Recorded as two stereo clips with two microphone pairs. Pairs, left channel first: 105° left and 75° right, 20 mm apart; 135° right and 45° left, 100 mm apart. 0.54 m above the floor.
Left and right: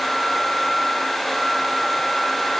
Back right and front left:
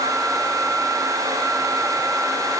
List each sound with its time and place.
Only background noise.